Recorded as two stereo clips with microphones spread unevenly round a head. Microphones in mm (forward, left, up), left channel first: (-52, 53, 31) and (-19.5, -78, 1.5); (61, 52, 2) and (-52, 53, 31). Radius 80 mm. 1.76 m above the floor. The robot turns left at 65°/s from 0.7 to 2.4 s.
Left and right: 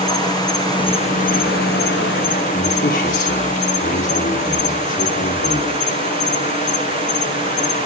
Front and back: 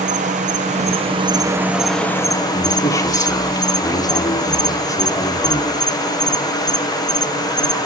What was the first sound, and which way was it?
An insect, 165° left.